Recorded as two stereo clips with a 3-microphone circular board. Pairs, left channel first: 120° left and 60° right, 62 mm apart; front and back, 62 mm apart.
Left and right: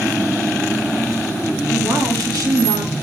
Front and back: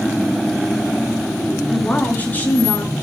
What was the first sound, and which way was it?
A woman speaking, 65° right.